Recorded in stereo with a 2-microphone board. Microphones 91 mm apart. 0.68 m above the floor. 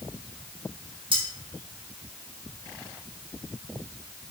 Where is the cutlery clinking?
75° right (ahead or behind), 1.3 m.